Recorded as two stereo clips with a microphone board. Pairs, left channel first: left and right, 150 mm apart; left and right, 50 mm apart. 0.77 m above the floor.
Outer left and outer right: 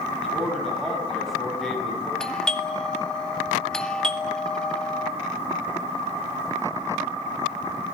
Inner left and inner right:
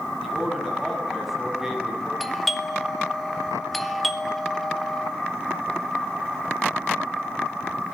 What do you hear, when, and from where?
0.2 s a man speaking: centre (ahead or behind), 6 m
2.2 s a doorbell: 5° left (ahead or behind), 2 m